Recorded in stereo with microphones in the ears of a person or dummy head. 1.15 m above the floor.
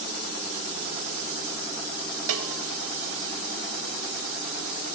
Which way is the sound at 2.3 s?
75° right (ahead or behind).